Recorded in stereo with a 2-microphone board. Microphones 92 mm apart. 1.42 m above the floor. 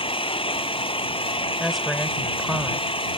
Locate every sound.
0.0 s an engine running: 80° left
1.6 s a woman speaking: centre (ahead or behind)